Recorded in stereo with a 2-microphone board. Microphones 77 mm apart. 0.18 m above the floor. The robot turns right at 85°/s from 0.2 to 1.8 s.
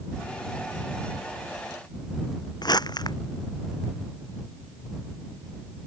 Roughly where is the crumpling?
Left.